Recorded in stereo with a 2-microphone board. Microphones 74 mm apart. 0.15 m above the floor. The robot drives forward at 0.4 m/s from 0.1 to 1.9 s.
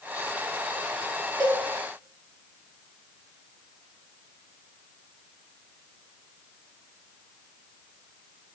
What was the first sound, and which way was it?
A cowbell, 80° right.